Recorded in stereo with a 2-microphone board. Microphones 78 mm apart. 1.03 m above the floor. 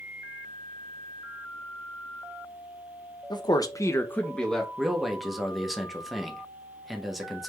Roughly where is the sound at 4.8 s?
Centre.